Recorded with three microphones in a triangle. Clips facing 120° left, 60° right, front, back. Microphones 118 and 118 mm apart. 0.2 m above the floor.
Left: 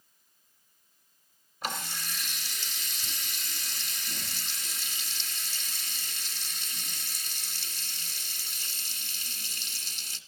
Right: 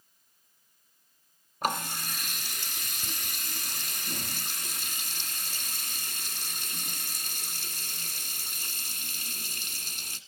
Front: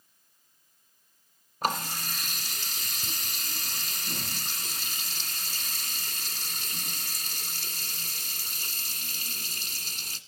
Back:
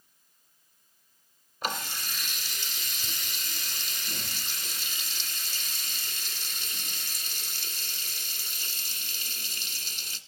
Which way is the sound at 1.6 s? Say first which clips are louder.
Right 6 dB, front 4 dB; 35° right.